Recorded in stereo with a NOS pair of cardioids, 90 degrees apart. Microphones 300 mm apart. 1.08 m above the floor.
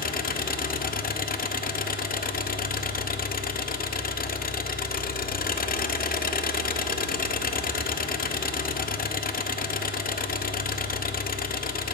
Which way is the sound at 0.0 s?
30° left.